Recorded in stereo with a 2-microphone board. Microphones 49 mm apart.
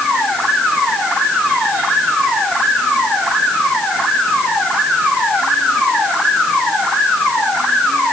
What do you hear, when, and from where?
Only background noise.